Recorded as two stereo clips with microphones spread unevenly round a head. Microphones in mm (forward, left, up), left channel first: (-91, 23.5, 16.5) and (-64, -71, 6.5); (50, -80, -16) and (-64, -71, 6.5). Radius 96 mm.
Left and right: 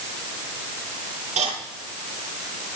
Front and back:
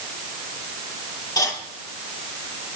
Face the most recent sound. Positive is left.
turn(degrees=-60)